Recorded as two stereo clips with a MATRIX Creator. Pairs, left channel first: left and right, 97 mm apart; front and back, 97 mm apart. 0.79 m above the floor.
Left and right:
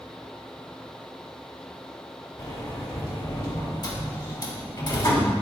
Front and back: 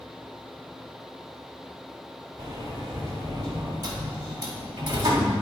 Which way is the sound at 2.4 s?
130° left.